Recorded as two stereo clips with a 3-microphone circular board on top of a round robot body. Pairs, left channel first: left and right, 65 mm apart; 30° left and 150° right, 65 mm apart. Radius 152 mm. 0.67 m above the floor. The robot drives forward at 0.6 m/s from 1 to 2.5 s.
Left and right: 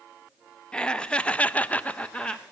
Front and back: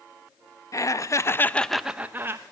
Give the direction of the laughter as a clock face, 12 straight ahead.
11 o'clock.